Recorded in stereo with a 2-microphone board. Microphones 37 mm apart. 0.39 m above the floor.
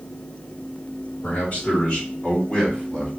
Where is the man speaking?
55° left (ahead or behind), 3 m; by 3.1 s 35° left (ahead or behind), 1.7 m.